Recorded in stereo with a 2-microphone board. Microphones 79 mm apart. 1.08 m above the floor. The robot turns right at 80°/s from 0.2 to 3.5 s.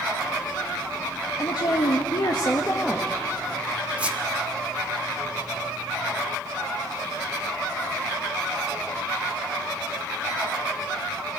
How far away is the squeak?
About 1.3 m.